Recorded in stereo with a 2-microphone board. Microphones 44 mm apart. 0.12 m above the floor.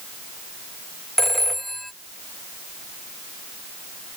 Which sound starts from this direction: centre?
A phone ringing, at 1.2 s.